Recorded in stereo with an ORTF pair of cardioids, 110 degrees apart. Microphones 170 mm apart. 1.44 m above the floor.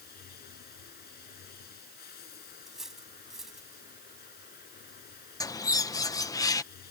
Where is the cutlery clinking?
Straight ahead.